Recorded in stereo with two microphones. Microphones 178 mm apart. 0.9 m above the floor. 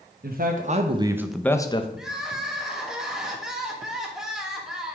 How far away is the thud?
No thud in this recording.